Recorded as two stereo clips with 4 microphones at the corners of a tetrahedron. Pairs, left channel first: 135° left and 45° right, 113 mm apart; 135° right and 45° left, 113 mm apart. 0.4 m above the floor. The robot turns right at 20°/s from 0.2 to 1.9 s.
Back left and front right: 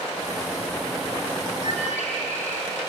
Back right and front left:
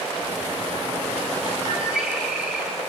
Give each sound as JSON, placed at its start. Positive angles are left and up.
{"t": 1.6, "sound": "a bird", "azimuth_deg": 125, "distance_m": 4.0}